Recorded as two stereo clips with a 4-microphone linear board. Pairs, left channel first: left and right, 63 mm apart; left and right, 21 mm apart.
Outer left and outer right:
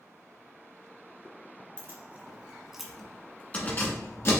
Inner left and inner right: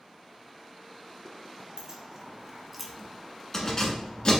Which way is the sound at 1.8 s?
40° right (ahead or behind).